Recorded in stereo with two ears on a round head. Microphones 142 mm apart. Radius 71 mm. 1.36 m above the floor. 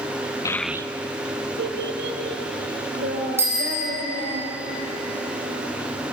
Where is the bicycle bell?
15° right (ahead or behind), 9 m.